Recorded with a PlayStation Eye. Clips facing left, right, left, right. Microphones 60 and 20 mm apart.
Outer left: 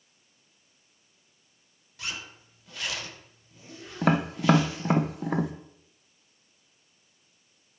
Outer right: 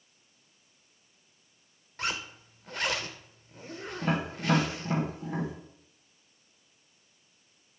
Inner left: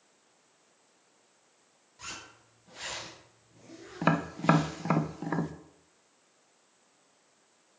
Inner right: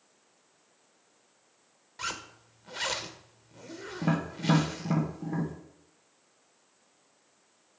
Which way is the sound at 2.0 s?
45° right (ahead or behind).